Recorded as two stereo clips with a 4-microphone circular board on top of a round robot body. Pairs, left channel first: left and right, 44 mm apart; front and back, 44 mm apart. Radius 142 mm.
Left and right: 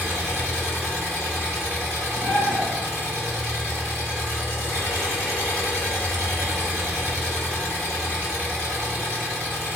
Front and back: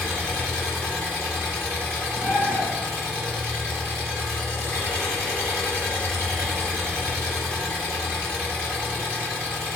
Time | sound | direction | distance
0.0 | an engine running | 140° right | 1.2 m
2.1 | a bird | 110° left | 0.7 m